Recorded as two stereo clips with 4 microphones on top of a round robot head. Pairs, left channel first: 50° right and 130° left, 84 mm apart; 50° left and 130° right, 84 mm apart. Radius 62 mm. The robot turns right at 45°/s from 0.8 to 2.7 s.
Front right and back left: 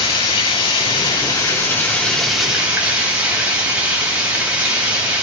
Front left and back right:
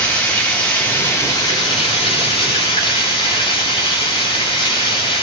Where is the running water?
25° right, 3.5 m; by 5.2 s 60° left, 3.5 m.